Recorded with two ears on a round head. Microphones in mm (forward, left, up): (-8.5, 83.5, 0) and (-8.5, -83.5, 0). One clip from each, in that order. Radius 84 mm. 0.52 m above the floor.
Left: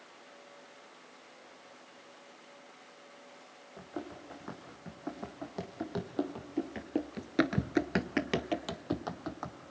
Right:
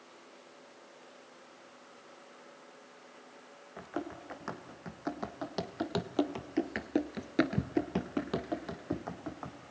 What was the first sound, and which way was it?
Running footsteps, 70° right (ahead or behind).